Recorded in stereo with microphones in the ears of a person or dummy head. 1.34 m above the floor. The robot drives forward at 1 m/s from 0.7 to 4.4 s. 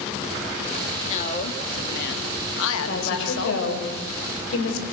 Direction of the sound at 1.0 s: 40° left (ahead or behind).